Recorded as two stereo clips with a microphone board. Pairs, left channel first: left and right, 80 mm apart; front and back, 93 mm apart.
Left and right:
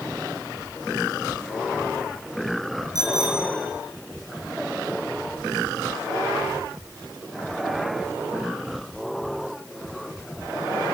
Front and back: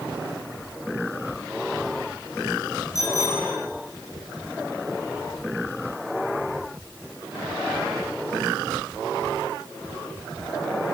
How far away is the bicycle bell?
About 4 m.